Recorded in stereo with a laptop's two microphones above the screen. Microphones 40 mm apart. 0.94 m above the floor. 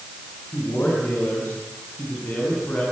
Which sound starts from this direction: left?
A man speaking, at 0.5 s.